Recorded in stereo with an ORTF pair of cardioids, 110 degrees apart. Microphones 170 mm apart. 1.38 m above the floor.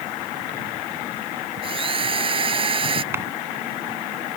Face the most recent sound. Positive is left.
turn(degrees=-15)